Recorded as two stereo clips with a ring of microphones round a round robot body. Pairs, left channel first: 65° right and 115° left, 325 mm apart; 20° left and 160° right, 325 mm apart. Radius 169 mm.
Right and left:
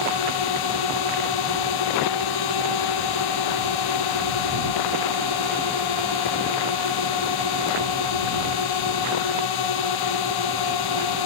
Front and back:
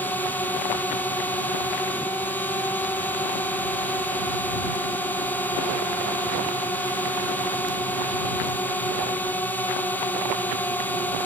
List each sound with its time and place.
0.0 s a drone: 60° right